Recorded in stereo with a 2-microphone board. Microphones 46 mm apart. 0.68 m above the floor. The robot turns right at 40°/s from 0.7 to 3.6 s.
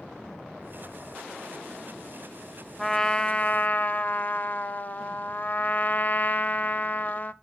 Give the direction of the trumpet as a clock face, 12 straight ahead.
12 o'clock.